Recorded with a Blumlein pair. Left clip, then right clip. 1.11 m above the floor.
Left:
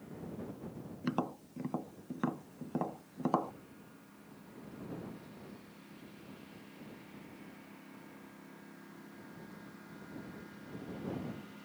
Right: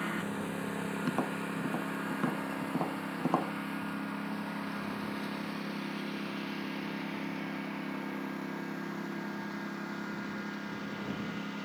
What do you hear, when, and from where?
0.0 s a lawn mower: 45° right; by 11.7 s 55° right
1.0 s tapping: 5° right